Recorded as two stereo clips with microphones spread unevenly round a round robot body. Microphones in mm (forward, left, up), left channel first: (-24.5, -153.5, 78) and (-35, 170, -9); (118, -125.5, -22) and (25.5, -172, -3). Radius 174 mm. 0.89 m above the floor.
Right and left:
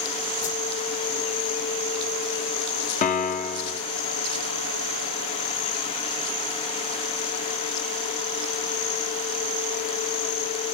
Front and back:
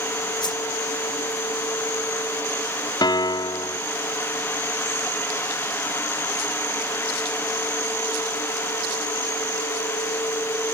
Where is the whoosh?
20° right.